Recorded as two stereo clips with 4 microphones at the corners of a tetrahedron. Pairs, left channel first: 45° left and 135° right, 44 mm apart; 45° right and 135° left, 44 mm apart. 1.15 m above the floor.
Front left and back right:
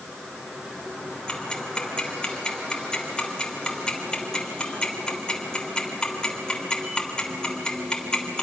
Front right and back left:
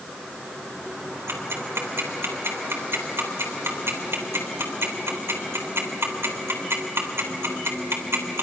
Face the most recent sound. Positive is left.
turn(degrees=115)